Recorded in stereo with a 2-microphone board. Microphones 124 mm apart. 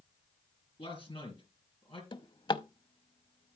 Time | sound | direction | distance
0.8 | a man speaking | 45° left (ahead or behind) | 4.5 m
2.1 | a drawer | 40° left (ahead or behind) | 0.6 m